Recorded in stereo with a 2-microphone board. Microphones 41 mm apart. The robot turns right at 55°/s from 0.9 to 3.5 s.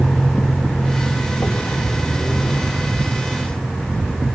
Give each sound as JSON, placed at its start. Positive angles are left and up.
{"t": 0.0, "sound": "a vehicle", "side_deg": 5}